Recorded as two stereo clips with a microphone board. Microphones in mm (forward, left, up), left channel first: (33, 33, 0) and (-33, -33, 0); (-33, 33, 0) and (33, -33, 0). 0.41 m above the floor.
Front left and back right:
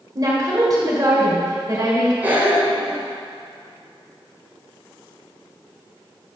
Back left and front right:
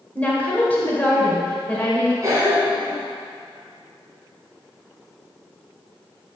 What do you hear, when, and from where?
0.1 s a woman speaking: 160° right, 1.9 m
2.2 s a cough: 75° right, 1.4 m